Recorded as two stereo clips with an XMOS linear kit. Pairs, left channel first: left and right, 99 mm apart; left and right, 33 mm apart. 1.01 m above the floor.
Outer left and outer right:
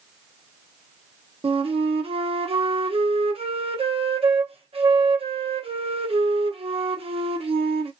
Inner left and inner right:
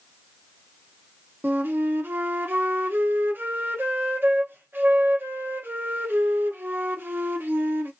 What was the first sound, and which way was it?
A flute, 75° right (ahead or behind).